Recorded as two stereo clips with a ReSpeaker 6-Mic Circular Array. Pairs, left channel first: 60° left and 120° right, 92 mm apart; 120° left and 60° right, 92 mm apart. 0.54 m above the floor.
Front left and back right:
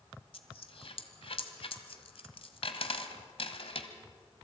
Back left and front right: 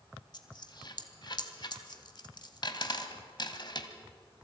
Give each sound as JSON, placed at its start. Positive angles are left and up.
{"t": 0.3, "sound": "a dropped coin", "azimuth_deg": 80, "distance_m": 1.4}